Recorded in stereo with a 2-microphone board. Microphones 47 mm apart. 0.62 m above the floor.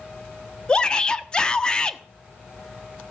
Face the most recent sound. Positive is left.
turn(degrees=25)  # may be behind; listen again after turning